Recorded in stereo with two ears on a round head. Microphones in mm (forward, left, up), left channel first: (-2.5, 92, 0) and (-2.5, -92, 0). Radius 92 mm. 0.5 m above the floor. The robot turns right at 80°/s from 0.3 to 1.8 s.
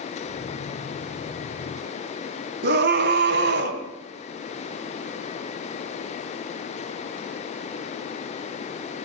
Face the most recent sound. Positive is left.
turn(degrees=-55)  # may be behind; listen again after turning